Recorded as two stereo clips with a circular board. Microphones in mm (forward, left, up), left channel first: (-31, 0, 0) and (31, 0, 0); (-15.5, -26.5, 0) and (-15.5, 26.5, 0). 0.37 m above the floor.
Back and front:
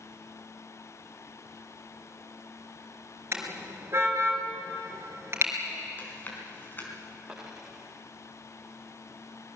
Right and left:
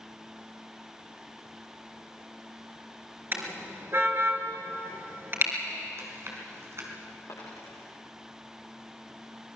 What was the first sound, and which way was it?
A car horn, 45° left.